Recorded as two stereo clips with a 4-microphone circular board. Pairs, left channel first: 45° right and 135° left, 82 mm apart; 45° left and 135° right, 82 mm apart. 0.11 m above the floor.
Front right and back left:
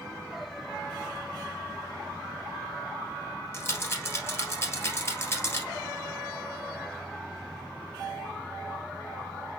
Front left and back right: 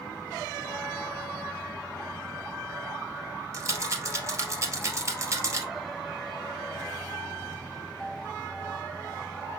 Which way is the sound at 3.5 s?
95° right.